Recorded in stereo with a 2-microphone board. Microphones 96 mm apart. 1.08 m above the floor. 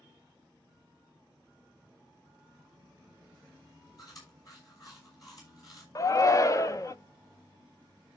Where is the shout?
35° left (ahead or behind), 0.6 m.